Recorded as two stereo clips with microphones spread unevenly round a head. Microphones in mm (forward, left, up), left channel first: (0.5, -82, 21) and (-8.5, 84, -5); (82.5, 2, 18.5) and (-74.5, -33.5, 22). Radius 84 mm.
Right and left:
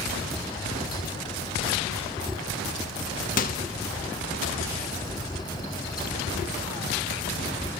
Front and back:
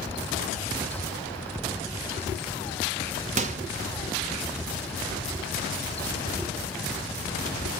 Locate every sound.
3.4 s a microwave: 120° right, 0.8 m